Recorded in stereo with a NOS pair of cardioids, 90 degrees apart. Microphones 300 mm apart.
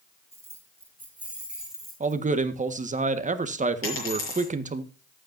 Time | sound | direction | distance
0.3 | keys jangling | 10° right | 5 m
2.0 | a man speaking | 25° right | 1.6 m
3.8 | a dropped coin | 45° left | 7 m